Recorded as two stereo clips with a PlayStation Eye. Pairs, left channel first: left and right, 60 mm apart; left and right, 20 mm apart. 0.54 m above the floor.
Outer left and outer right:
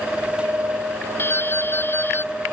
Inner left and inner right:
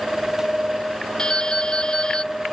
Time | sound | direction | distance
1.2 | dripping | 35° left (ahead or behind) | ?